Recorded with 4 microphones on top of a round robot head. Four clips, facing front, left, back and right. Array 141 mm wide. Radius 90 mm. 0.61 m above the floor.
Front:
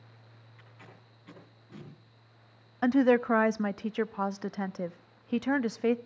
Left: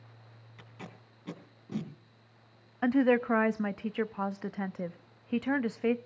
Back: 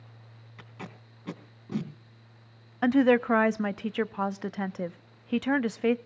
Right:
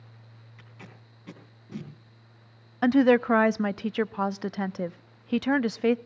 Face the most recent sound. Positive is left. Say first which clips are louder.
# right 5 dB, back 2 dB
turn(degrees=-105)